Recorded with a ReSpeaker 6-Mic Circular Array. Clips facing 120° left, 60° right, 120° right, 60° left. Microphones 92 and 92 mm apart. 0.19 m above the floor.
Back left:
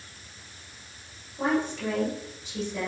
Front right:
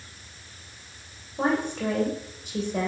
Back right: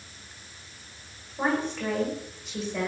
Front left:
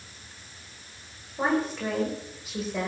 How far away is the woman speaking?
About 9.5 m.